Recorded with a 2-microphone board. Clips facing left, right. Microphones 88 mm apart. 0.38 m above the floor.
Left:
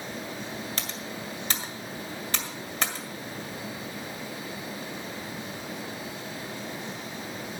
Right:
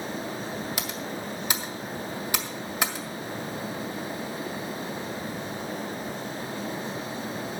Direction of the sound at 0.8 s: 10° right (ahead or behind).